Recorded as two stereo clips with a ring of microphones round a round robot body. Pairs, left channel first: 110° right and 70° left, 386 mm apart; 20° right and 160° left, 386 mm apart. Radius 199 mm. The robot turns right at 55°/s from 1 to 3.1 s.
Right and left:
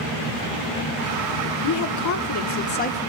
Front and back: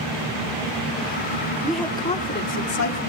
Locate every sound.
1.6 s a woman speaking: 120° right, 1.2 m; by 3.0 s 45° right, 1.2 m